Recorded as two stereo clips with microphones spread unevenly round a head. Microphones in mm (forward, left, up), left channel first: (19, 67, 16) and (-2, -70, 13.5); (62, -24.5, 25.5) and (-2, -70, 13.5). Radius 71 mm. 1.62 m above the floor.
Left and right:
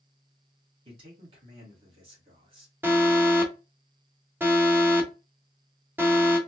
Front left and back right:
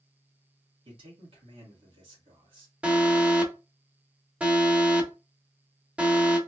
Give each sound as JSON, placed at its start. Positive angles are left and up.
{"t": 0.8, "sound": "a man speaking", "azimuth_deg": -155, "distance_m": 1.6}
{"t": 2.8, "sound": "an alarm", "azimuth_deg": -150, "distance_m": 0.8}